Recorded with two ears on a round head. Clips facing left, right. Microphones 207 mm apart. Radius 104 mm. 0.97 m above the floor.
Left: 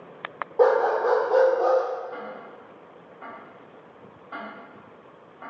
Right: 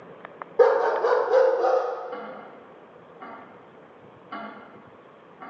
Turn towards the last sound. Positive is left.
turn(degrees=-35)  # may be behind; listen again after turning